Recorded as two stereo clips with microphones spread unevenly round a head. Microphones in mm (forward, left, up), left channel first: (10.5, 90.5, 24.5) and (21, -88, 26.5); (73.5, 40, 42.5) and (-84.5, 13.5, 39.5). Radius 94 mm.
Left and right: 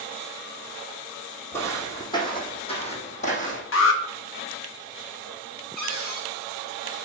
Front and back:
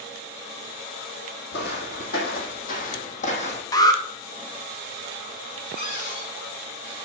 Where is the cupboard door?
50° left, 3 m.